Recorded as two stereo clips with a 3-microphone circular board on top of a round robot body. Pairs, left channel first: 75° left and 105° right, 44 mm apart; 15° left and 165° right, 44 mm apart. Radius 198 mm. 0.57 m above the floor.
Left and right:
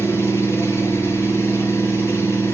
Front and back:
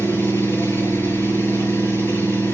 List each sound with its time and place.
0.0 s an engine running: 50° left, 8.5 m